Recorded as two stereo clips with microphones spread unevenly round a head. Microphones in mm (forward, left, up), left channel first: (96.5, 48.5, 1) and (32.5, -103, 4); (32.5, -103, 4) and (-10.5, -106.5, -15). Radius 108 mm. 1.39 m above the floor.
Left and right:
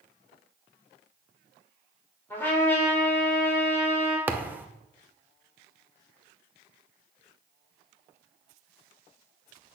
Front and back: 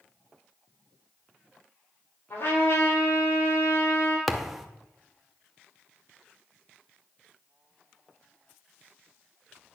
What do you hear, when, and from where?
2.3 s a trumpet: 10° right, 4 m
4.3 s a thud: 45° right, 0.8 m